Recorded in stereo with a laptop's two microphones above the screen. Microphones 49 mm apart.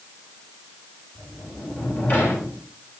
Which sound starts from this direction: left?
A sliding door, at 1.1 s.